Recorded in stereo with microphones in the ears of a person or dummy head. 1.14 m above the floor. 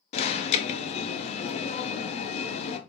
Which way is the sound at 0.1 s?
30° left (ahead or behind).